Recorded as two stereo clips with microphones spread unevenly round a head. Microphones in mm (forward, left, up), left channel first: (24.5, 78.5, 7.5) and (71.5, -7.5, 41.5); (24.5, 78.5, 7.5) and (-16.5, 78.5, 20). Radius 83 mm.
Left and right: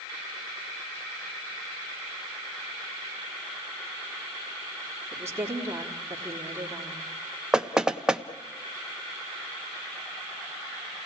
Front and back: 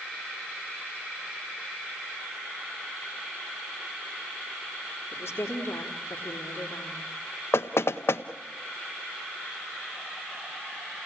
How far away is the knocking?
About 0.9 m.